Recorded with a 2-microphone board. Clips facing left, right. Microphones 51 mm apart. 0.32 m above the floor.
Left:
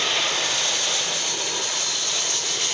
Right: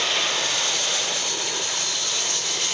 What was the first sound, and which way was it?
Only background noise.